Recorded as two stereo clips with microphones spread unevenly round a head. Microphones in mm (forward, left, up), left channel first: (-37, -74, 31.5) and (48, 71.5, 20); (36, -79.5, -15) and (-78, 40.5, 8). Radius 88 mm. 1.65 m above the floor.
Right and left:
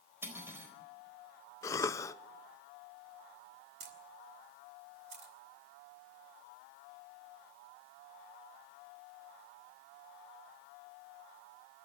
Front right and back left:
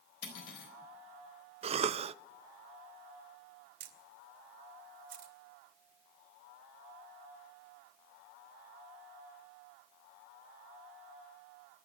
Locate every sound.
0.2 s cutlery clinking: 20° right, 4 m
1.6 s a cough: 170° left, 0.6 m
3.8 s a camera shutter: 105° left, 2.5 m